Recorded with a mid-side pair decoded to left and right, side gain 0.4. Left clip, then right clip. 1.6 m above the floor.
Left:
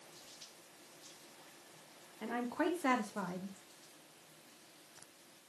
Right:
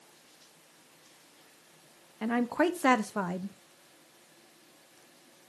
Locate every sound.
2.2 s a woman speaking: 65° right, 1.1 m